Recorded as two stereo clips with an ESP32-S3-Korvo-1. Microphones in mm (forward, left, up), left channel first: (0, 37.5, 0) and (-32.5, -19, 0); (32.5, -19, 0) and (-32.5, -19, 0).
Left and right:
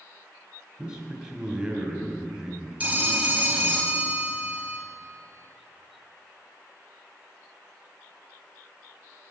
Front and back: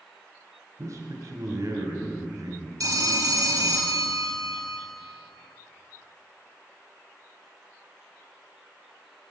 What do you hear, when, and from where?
0.8 s a man speaking: 165° left, 2 m
2.8 s a phone ringing: 175° left, 1.3 m